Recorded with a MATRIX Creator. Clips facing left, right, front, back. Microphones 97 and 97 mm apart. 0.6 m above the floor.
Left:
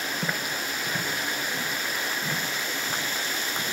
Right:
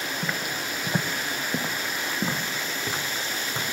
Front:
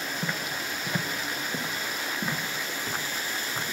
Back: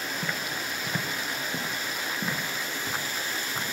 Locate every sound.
0.2 s footsteps: 65° left, 0.5 m; by 3.7 s 90° right, 2.5 m